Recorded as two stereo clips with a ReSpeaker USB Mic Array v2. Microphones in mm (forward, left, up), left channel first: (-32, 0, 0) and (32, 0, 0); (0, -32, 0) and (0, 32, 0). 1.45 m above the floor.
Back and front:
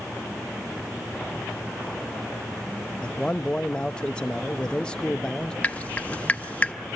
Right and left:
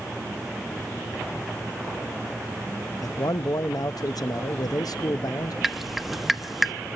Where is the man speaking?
105° right, 0.8 m.